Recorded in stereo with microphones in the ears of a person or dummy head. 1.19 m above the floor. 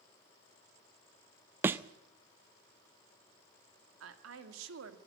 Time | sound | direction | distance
1.6 | a thud | 15° right (ahead or behind) | 0.5 m
4.0 | a woman speaking | 80° right | 2 m